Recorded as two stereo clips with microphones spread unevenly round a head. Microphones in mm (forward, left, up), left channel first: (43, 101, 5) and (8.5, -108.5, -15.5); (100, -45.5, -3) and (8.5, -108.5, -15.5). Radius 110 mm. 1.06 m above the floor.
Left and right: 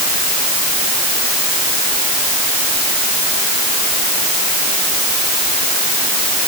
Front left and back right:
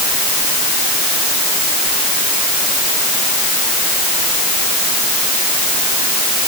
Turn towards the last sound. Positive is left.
No sound to turn to.